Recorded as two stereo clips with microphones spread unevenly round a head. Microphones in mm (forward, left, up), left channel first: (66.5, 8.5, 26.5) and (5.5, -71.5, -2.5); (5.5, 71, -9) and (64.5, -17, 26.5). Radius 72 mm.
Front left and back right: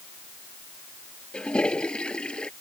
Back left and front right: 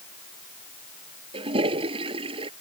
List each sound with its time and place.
1.3 s a toilet flushing: 25° right